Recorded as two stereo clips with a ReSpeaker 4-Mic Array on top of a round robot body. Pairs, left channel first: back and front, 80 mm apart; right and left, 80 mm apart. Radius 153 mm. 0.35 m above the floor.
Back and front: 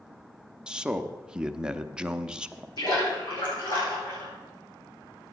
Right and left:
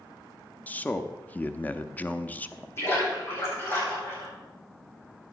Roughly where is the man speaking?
Ahead right.